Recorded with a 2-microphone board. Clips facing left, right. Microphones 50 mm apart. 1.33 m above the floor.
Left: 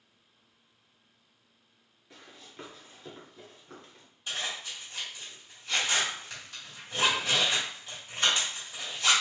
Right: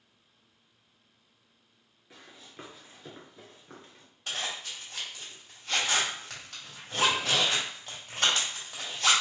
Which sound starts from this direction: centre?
Running footsteps, at 2.1 s.